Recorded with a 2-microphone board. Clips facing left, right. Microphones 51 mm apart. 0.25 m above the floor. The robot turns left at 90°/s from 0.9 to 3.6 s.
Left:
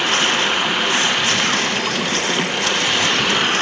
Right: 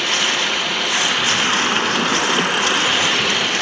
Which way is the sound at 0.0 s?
25° left.